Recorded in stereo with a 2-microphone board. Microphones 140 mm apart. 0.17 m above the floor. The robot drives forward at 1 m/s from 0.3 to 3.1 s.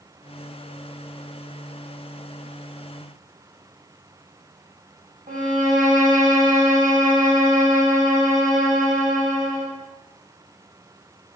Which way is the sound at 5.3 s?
65° right (ahead or behind).